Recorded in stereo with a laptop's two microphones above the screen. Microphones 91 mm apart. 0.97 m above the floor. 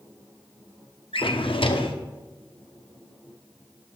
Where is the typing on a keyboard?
No typing on a keyboard in this recording.